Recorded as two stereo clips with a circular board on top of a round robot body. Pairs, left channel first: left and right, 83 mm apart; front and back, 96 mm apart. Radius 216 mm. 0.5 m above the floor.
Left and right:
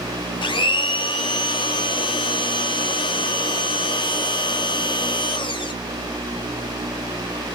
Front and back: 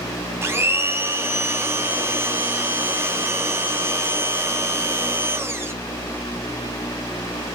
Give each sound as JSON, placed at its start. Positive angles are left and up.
{"t": 0.4, "sound": "a blender", "azimuth_deg": 115, "distance_m": 0.6}